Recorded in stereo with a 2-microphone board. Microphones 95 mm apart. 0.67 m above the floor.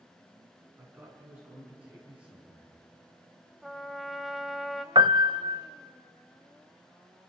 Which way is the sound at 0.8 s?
20° right (ahead or behind).